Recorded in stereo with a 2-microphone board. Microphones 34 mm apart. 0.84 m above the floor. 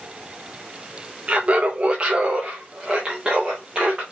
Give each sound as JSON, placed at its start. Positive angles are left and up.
{"t": 1.3, "sound": "laughter", "side_deg": -35, "distance_m": 0.5}